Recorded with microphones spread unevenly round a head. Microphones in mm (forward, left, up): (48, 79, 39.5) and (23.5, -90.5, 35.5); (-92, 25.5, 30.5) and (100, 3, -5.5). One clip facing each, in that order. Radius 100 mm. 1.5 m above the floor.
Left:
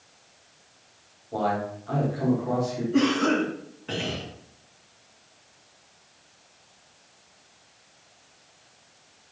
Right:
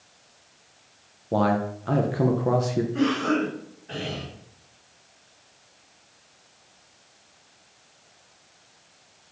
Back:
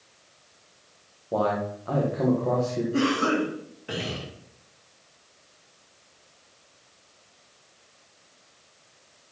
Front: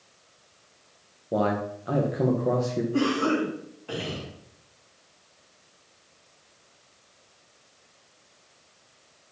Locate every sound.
1.3 s a man speaking: 80° right, 1.4 m
2.9 s a cough: 105° left, 2.5 m